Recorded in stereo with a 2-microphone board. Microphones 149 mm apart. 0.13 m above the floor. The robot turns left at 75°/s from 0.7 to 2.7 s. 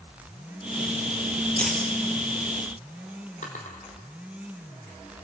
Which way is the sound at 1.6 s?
10° left (ahead or behind).